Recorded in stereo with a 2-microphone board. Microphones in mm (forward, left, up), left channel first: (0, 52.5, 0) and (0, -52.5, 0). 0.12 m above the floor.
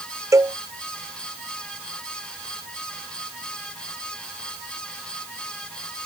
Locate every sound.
0.3 s a cowbell: 30° right (ahead or behind)